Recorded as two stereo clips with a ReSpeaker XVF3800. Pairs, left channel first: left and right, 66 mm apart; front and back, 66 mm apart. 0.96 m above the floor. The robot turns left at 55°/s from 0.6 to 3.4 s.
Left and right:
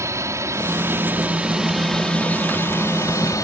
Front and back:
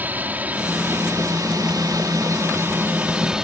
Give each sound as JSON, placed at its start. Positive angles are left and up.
{"t": 0.0, "sound": "a drone", "azimuth_deg": -120}